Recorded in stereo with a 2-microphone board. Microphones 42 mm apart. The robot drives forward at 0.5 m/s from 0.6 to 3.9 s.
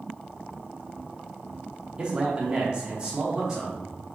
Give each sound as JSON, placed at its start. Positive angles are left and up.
{"t": 2.0, "sound": "a man speaking", "side_deg": -20, "distance_m": 0.8}